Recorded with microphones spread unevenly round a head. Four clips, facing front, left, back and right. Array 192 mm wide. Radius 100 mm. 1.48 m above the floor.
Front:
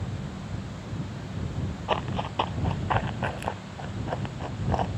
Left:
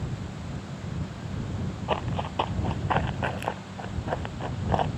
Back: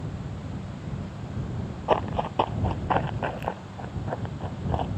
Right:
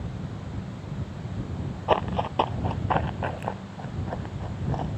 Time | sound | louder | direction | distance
1.9 | running footsteps | right 6 dB, back 5 dB | 145° right | ?